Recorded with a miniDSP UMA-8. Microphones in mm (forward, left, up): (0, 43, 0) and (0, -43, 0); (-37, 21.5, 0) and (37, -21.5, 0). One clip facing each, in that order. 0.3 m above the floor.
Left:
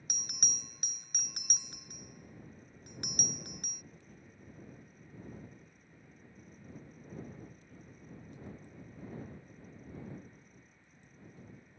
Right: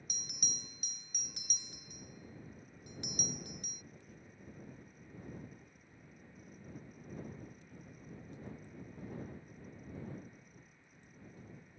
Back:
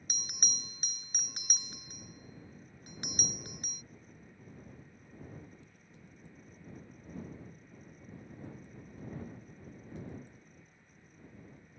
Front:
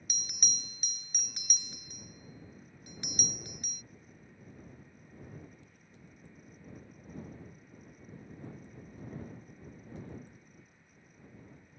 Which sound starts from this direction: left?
A bell, at 0.1 s.